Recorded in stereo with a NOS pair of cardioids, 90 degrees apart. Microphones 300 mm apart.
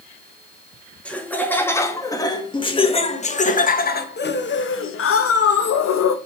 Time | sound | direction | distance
1.1 | laughter | 5° left | 3 m